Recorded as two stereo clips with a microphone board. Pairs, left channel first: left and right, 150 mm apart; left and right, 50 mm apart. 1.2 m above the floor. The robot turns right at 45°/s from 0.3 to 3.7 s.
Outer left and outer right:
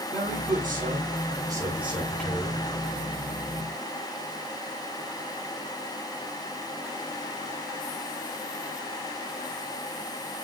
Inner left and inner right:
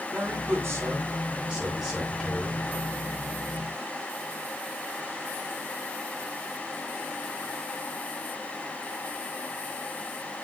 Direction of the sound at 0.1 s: 80° right.